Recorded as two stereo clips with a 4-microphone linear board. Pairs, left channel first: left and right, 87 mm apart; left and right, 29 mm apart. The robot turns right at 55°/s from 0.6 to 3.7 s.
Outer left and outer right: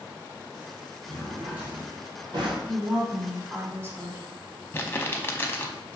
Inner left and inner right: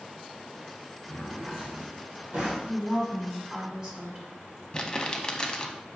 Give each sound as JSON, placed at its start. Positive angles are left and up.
{"t": 1.1, "sound": "a drawer", "azimuth_deg": 165, "distance_m": 1.5}
{"t": 2.6, "sound": "a woman speaking", "azimuth_deg": 175, "distance_m": 1.6}
{"t": 4.7, "sound": "crumpling", "side_deg": 25, "distance_m": 0.6}